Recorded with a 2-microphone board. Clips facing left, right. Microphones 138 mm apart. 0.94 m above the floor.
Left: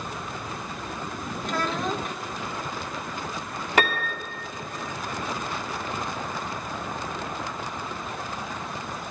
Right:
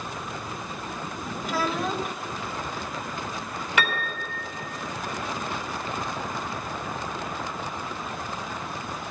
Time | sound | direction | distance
1.4 | a child speaking | 5° right (ahead or behind) | 0.8 m
3.8 | a piano | 40° left (ahead or behind) | 2.0 m